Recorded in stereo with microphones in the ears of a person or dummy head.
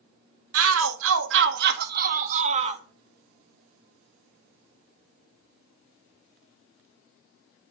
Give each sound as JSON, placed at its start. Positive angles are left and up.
{"t": 0.5, "sound": "a shout", "side_deg": -80, "distance_m": 1.7}